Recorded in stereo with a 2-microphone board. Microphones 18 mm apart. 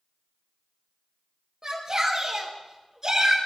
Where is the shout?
30° right (ahead or behind), 4.5 m.